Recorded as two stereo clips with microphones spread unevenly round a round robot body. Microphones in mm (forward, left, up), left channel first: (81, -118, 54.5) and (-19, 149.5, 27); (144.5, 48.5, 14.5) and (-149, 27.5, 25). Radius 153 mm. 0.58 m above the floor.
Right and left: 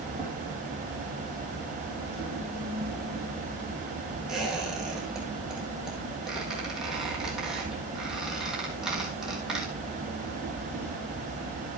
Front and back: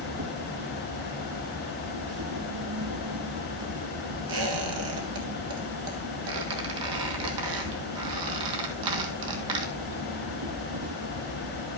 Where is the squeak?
160° right, 1.6 m.